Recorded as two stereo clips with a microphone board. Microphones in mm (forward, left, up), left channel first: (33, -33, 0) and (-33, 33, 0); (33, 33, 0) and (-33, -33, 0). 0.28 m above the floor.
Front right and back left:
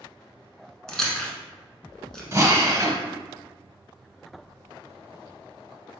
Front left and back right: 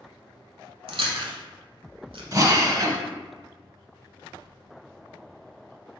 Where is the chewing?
130° right, 0.8 m.